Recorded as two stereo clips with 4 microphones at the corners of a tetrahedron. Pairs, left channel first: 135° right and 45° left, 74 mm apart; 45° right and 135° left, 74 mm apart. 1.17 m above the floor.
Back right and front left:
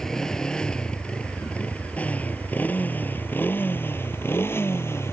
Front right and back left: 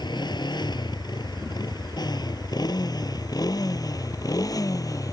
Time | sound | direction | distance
0.0 | a motorcycle | 55° right | ?